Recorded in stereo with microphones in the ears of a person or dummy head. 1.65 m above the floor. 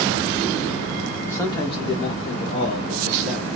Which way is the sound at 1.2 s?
5° left (ahead or behind).